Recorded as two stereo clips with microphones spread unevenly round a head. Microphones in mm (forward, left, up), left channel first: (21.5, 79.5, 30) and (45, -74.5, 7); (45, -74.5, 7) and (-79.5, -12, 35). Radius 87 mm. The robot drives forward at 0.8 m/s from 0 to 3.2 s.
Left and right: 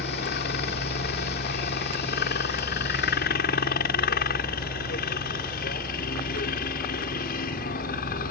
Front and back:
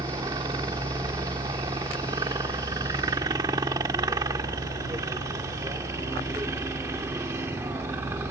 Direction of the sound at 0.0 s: 85° left.